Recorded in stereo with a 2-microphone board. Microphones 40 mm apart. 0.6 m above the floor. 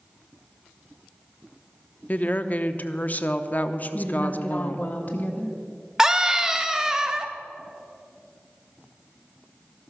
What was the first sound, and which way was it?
A woman speaking, 45° left (ahead or behind).